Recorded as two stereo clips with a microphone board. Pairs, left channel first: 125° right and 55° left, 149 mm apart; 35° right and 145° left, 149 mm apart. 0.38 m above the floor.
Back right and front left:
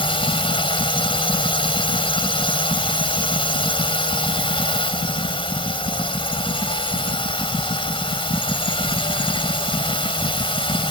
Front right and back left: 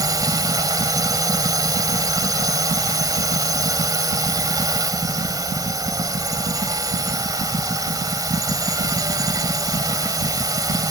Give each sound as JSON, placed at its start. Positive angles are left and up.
{"t": 0.0, "sound": "a drone", "azimuth_deg": -160}